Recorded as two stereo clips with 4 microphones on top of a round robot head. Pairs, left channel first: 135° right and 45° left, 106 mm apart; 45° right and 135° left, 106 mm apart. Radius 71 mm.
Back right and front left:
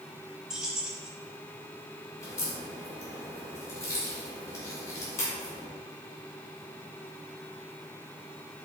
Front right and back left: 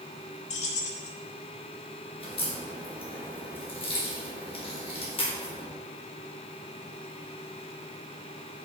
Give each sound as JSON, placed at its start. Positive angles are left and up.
{"t": 0.5, "sound": "keys jangling", "azimuth_deg": -40, "distance_m": 1.1}
{"t": 2.2, "sound": "a crack", "azimuth_deg": -75, "distance_m": 3.0}